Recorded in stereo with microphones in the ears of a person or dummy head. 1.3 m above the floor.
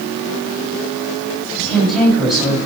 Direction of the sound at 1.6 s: 5° left (ahead or behind).